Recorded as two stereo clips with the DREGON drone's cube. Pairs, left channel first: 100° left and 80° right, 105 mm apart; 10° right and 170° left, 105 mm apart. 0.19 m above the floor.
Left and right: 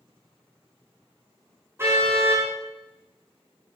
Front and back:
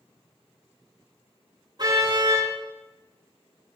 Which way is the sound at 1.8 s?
145° right.